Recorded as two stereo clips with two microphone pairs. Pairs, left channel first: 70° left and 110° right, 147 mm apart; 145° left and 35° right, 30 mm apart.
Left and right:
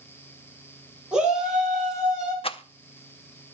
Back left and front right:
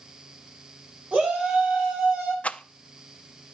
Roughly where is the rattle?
Behind left.